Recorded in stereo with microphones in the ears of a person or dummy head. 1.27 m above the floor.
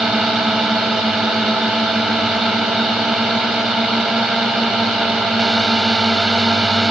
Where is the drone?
5° left (ahead or behind).